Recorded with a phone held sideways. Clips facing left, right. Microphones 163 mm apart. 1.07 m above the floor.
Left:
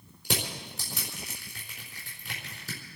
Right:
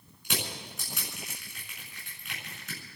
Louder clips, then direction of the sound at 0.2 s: Left 3 dB; 35° left (ahead or behind).